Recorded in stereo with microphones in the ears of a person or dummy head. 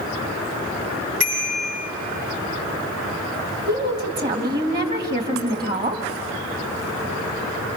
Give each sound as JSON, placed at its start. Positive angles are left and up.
{"t": 1.2, "sound": "a bicycle bell", "side_deg": -55, "distance_m": 8.0}
{"t": 3.7, "sound": "a woman speaking", "side_deg": -45, "distance_m": 2.5}